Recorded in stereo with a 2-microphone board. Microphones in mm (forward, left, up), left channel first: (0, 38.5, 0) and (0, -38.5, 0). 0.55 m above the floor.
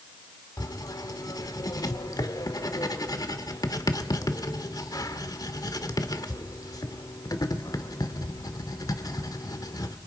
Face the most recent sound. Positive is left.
turn(degrees=55)  # may be behind; listen again after turning